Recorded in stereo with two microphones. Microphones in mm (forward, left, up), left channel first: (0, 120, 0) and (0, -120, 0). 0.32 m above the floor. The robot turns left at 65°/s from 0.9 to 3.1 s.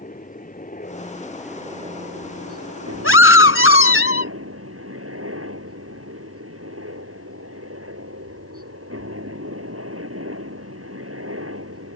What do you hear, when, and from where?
0.0 s a helicopter: 35° left; by 12.0 s 110° right
3.0 s a scream: 65° left (ahead or behind); by 4.3 s 60° left (ahead or behind)